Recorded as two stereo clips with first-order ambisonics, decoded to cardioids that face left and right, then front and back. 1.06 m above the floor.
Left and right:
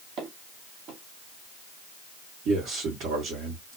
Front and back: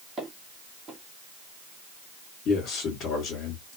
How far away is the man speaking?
About 1.4 m.